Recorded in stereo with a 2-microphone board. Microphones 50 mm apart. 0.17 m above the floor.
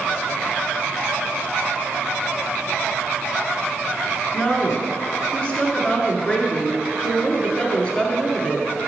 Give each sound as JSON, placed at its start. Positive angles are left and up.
{"t": 4.3, "sound": "a woman speaking", "side_deg": 20, "distance_m": 2.5}